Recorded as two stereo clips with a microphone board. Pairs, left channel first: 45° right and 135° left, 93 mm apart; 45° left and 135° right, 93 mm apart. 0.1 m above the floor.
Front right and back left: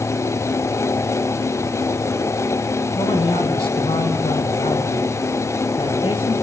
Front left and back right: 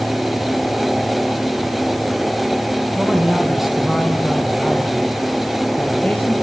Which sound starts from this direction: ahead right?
A man speaking, at 3.0 s.